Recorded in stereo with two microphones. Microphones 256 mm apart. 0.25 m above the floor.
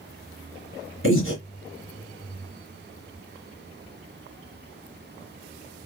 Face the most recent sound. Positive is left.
turn(degrees=50)  # may be behind; listen again after turning